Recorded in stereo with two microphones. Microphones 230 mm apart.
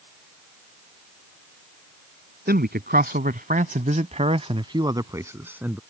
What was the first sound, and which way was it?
A man speaking, 45° right (ahead or behind).